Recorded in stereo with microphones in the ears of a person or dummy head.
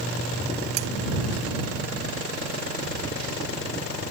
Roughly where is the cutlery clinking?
Right.